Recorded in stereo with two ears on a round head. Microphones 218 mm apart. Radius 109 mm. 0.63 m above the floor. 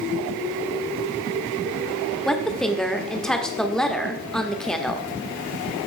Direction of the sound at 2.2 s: 5° left (ahead or behind).